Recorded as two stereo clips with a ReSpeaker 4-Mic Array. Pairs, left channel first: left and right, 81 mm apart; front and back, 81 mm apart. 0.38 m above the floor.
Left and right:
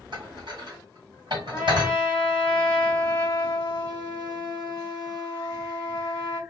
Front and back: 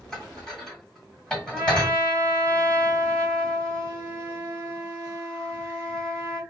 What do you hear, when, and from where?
0.1 s dishes clattering: 80° right, 1.5 m
1.5 s a trumpet: 135° left, 1.5 m